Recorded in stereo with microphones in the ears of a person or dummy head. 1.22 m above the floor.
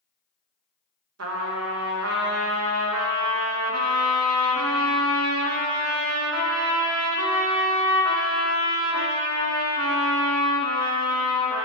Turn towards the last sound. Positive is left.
turn(degrees=-85)